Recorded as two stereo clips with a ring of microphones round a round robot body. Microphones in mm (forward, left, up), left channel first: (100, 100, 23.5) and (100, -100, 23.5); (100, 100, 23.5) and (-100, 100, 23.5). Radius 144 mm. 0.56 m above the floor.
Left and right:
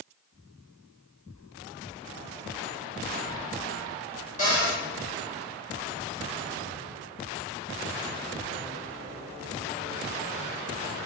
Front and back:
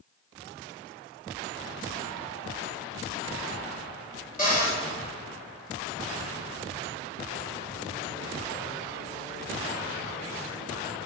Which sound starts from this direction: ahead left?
A cupboard door, at 4.4 s.